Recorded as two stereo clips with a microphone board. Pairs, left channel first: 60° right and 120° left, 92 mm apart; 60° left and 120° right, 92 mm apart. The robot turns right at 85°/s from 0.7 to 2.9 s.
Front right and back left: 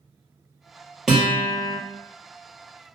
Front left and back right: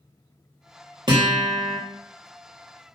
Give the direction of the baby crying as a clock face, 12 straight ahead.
No baby crying in this recording.